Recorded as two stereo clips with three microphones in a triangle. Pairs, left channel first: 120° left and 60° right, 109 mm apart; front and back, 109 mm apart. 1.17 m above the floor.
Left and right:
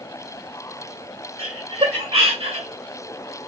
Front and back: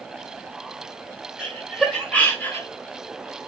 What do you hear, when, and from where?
1.4 s laughter: 85° right, 1.4 m; by 2.7 s 65° right, 0.8 m